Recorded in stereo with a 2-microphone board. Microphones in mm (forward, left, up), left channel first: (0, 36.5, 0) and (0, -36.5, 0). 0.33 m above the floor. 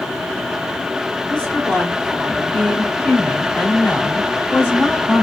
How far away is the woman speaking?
About 1.4 m.